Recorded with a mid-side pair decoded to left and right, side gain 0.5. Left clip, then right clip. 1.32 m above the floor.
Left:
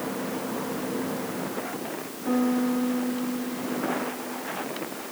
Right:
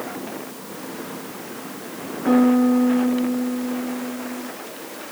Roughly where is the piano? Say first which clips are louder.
Right 8 dB; ahead right.